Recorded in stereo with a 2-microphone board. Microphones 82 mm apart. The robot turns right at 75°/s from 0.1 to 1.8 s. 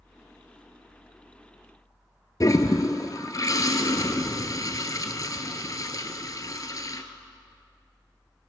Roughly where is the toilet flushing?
Left.